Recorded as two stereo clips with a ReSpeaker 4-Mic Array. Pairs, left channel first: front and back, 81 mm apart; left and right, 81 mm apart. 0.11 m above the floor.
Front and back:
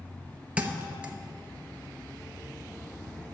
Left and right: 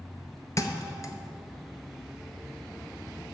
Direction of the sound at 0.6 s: 110° left.